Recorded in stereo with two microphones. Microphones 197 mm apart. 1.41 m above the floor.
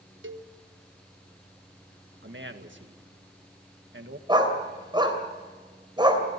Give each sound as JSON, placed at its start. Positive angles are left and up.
{"t": 0.2, "sound": "a cowbell", "side_deg": -80, "distance_m": 1.1}
{"t": 2.2, "sound": "a man speaking", "side_deg": -70, "distance_m": 1.9}
{"t": 4.3, "sound": "a dog barking", "side_deg": -25, "distance_m": 3.0}